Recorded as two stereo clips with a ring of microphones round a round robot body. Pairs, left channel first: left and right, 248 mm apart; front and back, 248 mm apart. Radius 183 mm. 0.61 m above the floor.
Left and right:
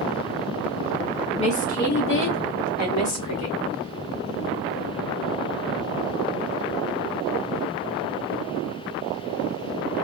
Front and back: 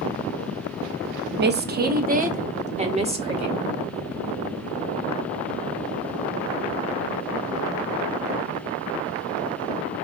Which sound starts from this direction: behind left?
A woman speaking, at 1.4 s.